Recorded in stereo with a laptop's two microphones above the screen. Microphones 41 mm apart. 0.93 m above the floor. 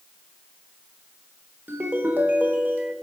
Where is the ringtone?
50° right (ahead or behind), 1.5 m.